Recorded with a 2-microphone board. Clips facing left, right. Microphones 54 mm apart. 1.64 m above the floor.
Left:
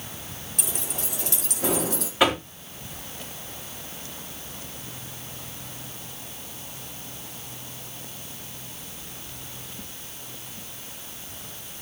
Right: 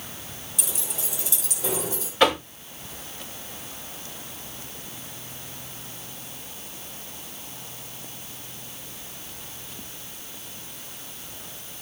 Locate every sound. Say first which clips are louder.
0.6 s keys jangling: left 2 dB; 55° left (ahead or behind), 4 m; by 2.1 s 70° left (ahead or behind), 3 m
2.2 s knocking: right 2 dB; 15° left (ahead or behind), 3.5 m